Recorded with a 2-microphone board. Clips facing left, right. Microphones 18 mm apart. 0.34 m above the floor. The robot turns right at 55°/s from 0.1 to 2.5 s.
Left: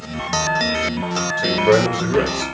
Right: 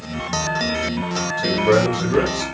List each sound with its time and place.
1.4 s a man speaking: 20° left (ahead or behind), 0.9 m; by 2.4 s 5° right (ahead or behind), 0.9 m